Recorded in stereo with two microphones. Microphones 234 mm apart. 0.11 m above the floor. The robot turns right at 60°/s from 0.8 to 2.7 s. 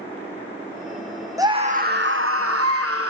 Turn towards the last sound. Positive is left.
turn(degrees=-85)